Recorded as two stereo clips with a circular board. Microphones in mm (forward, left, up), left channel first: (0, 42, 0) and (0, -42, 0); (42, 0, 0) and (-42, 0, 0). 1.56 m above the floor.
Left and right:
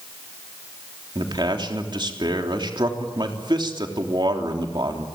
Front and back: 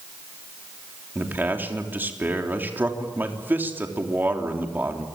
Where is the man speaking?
115° right, 3.5 m.